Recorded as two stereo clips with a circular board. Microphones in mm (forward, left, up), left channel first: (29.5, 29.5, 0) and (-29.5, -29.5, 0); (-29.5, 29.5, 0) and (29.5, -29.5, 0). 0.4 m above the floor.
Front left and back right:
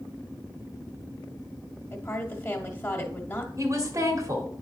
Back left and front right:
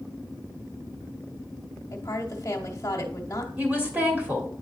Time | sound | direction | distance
1.9 | a woman speaking | 90° left | 1.2 m
3.6 | a woman speaking | 110° right | 1.8 m